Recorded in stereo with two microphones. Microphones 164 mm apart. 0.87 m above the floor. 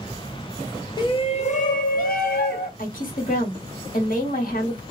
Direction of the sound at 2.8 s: 55° left (ahead or behind).